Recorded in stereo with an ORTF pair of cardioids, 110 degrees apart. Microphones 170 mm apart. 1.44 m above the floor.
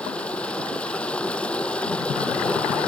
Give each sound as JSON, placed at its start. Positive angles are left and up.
{"t": 0.0, "sound": "running water", "azimuth_deg": 5}